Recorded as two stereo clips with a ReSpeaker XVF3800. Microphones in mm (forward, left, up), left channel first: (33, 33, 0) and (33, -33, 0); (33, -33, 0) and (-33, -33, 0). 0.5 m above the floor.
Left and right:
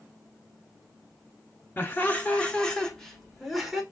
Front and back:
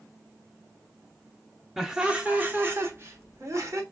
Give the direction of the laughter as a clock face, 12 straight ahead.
9 o'clock.